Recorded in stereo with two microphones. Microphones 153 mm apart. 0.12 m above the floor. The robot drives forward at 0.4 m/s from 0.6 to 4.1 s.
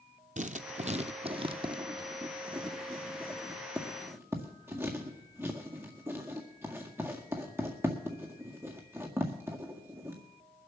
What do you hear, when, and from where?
0.4 s writing: 55° right (ahead or behind), 0.6 m; by 10.2 s 15° right (ahead or behind), 1.8 m